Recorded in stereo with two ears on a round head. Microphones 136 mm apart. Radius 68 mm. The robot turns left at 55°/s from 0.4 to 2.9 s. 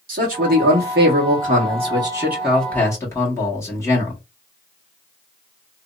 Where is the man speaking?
65° right, 1.3 m; by 4.2 s 160° left, 1.3 m.